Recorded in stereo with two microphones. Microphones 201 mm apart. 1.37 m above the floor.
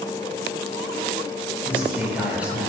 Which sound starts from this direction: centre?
A man speaking, at 1.6 s.